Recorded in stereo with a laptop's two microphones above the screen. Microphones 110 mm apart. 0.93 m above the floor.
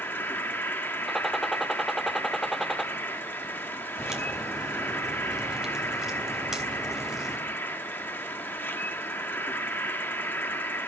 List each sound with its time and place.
0.0 s an insect: 20° left (ahead or behind), 0.9 m
1.1 s a gunshot: centre (ahead or behind), 0.6 m
4.0 s a crack: 5° right (ahead or behind), 3 m